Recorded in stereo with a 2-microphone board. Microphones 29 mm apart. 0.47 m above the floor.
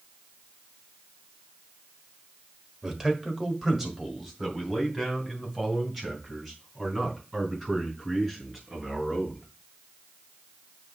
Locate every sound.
2.8 s a man speaking: 15° right (ahead or behind), 1.4 m; by 9.4 s centre (ahead or behind), 5.5 m